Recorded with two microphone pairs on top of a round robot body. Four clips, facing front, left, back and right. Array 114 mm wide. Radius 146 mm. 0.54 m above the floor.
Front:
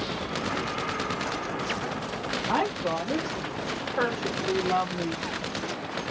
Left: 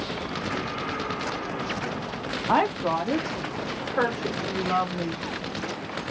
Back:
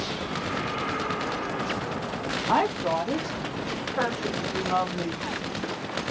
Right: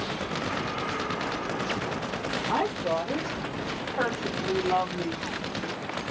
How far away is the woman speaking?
About 1.1 m.